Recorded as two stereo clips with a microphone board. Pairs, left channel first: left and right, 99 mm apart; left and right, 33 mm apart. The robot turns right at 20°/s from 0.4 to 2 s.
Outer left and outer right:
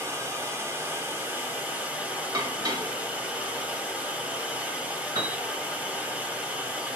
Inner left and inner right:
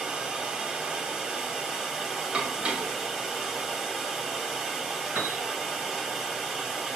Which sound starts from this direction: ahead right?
Running water, at 0.0 s.